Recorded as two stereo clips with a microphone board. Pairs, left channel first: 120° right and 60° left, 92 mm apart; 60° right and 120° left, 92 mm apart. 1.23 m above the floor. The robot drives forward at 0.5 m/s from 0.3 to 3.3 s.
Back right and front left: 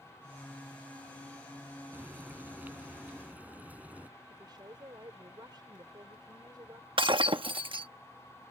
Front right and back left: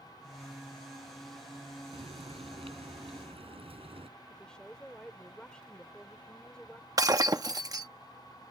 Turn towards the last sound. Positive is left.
turn(degrees=75)